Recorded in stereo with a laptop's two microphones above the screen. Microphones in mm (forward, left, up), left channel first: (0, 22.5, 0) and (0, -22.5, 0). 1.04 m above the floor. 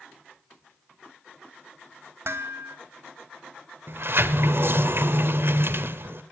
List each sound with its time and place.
2.2 s dishes clattering: 60° right (ahead or behind), 1.8 m
3.9 s a sliding door: 55° right (ahead or behind), 1.2 m